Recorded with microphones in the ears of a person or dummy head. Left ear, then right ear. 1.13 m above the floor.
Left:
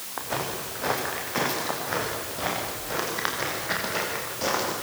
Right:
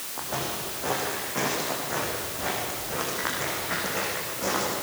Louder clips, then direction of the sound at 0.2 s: Left 1 dB; 70° left (ahead or behind).